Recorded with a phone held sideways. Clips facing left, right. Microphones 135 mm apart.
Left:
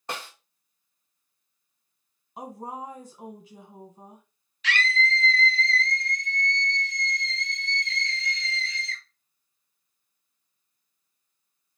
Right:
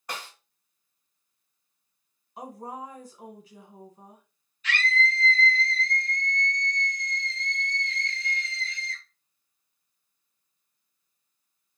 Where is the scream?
85° left, 0.5 m.